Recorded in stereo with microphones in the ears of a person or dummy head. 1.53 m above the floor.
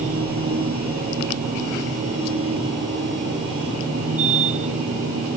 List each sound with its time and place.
0.0 s a machine running: 40° right (ahead or behind)